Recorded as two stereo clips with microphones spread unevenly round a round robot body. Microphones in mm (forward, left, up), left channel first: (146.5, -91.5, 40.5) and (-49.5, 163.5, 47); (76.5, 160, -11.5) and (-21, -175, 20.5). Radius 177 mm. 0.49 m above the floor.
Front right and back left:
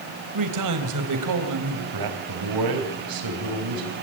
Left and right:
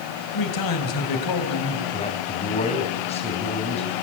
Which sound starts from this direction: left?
A man speaking, at 0.3 s.